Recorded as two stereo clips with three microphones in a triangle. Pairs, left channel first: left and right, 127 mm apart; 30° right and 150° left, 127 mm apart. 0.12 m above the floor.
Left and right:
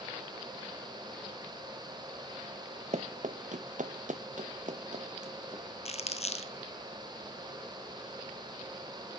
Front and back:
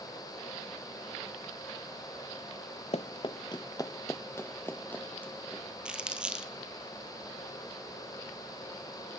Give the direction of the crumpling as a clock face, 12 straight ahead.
10 o'clock.